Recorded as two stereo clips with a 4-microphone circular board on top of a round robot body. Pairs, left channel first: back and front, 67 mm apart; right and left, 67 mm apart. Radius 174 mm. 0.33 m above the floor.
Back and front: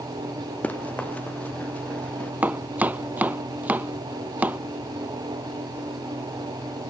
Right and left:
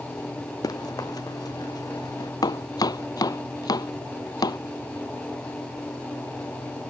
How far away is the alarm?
No alarm in this recording.